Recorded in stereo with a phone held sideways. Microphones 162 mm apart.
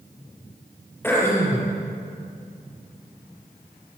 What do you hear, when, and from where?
1.0 s throat clearing: 15° left (ahead or behind), 6 m